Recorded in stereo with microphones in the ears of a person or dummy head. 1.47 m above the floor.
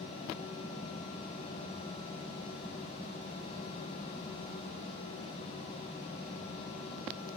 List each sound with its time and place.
Only background noise.